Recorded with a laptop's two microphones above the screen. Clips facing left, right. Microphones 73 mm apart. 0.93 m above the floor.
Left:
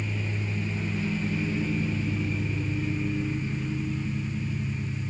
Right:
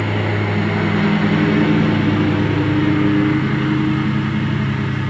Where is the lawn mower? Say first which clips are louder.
Right 14 dB; 75° right (ahead or behind); by 5.1 s 80° right.